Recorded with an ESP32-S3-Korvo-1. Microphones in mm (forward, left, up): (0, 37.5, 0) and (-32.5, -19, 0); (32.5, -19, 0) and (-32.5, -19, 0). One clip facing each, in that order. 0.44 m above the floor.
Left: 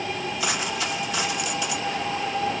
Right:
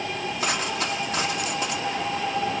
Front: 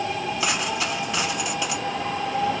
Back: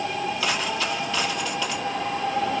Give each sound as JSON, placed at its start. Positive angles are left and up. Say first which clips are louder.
{"t": 0.4, "sound": "a dropped coin", "louder": "right 2 dB, even", "azimuth_deg": -75, "distance_m": 2.5}